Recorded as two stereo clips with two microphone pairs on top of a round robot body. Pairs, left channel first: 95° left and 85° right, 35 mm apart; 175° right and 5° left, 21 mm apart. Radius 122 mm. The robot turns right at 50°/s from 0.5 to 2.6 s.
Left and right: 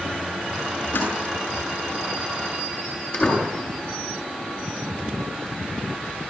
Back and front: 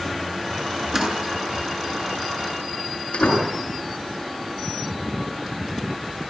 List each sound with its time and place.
0.9 s a door slam: 70° left, 8 m; by 3.5 s 150° left, 8 m